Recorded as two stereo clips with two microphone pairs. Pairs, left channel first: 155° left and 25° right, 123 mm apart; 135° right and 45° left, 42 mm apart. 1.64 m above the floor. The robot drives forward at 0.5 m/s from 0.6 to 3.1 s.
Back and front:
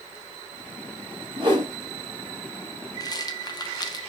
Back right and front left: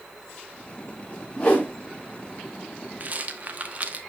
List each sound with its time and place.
1.4 s a whoosh: 70° right, 2.5 m; by 1.7 s 75° right, 2 m
3.0 s a rattle: 95° left, 0.9 m; by 4.0 s 100° left, 0.9 m